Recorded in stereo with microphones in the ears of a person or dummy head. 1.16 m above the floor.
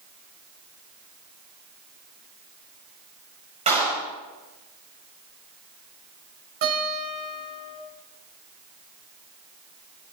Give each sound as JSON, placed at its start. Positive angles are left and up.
{"t": 3.7, "sound": "a clap", "side_deg": -35, "distance_m": 6.0}
{"t": 6.6, "sound": "a guitar", "side_deg": -50, "distance_m": 6.5}